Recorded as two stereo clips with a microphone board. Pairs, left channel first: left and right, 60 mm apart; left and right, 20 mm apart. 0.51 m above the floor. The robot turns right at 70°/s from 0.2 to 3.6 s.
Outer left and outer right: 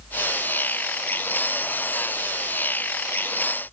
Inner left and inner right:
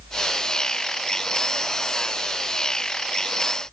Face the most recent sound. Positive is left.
No sound to turn to.